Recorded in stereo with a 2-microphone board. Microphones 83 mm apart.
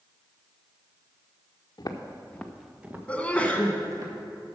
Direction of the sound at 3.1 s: 15° left (ahead or behind).